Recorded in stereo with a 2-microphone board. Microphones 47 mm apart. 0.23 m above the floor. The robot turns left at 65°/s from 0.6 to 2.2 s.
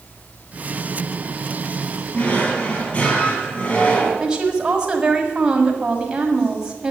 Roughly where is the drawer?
Left.